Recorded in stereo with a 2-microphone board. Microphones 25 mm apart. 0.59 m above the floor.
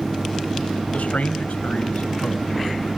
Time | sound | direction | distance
0.9 | a man speaking | 75° left (ahead or behind) | 2.5 m